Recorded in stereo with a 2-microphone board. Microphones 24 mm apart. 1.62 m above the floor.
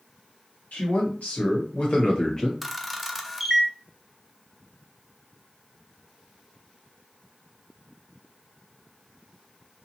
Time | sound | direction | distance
0.7 | a man speaking | 70° left (ahead or behind) | 1.5 m
2.6 | a camera shutter | 5° right (ahead or behind) | 0.5 m